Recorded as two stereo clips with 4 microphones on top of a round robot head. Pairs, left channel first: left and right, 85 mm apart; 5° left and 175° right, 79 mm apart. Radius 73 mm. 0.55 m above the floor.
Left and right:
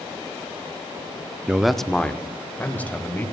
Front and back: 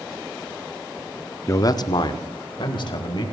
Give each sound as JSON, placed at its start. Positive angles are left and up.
{"t": 1.5, "sound": "a man speaking", "azimuth_deg": -20, "distance_m": 0.8}